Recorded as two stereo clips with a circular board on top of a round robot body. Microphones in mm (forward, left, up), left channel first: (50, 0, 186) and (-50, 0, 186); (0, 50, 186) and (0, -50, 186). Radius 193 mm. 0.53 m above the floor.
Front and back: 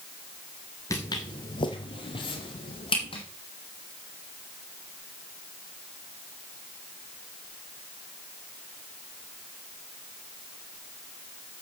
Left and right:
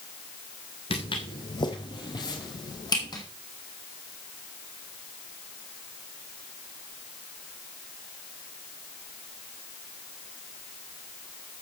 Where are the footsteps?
60° left, 0.5 m; by 3.2 s 40° left, 2.5 m.